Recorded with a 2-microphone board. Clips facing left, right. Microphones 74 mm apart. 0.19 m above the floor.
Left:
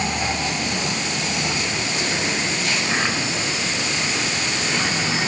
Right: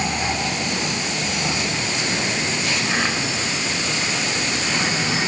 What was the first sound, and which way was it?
Only background noise.